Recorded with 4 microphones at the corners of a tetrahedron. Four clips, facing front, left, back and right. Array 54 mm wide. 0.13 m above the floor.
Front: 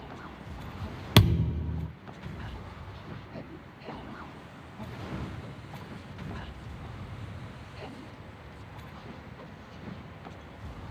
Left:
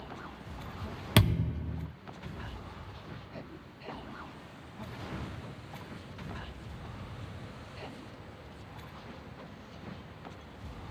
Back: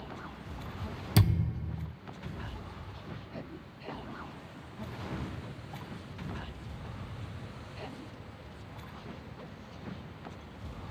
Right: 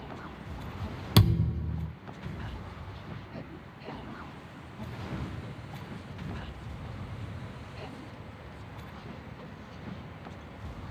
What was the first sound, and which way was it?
A thud, 15° left.